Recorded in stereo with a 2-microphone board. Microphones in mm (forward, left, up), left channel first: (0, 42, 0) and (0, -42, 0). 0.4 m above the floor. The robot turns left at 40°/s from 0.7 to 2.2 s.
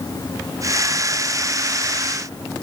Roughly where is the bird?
I don't hear a bird.